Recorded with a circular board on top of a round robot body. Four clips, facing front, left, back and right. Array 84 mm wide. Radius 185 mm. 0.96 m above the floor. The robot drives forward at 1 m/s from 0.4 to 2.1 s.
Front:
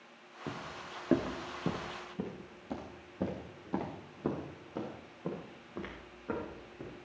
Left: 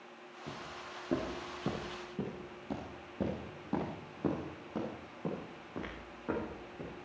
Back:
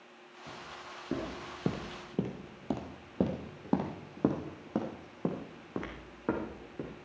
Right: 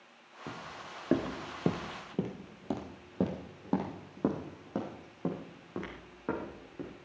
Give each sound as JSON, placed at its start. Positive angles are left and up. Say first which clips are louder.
{"t": 0.5, "sound": "footsteps", "louder": "right 2 dB, front 3 dB", "azimuth_deg": -25, "distance_m": 2.0}